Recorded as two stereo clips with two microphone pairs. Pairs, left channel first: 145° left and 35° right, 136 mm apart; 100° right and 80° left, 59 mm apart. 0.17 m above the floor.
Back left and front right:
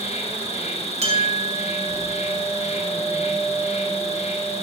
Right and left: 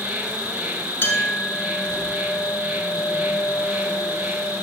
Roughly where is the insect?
Behind left.